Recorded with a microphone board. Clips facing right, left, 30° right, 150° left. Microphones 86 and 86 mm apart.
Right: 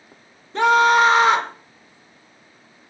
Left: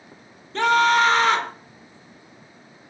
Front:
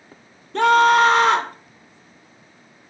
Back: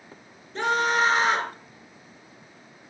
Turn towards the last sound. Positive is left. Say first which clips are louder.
# right 3 dB, front 9 dB
turn(degrees=-15)